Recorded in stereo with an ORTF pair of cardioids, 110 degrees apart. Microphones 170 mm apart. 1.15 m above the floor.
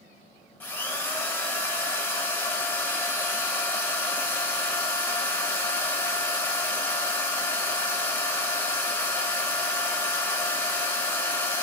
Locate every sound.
0.6 s a drill: 10° left, 1.1 m